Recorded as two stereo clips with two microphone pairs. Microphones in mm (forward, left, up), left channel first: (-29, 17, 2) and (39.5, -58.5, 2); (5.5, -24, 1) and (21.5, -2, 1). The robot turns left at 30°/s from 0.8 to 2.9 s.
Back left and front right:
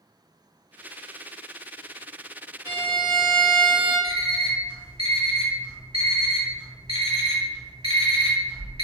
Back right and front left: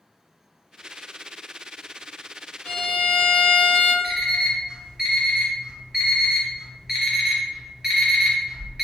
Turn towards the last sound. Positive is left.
turn(degrees=-20)